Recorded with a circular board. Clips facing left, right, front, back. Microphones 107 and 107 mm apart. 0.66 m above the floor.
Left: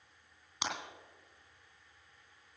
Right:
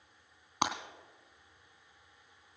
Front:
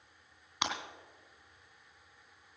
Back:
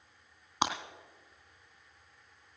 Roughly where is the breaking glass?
Behind right.